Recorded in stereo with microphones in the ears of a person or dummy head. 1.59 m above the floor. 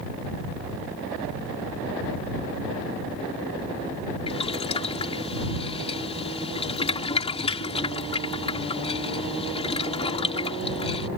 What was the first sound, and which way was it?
Boiling, 30° left (ahead or behind).